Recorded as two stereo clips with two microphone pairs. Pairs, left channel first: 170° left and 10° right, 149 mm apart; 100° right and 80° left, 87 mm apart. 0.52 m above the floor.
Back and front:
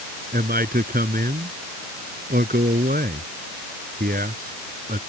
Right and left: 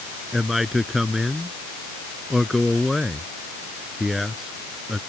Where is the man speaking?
10° right.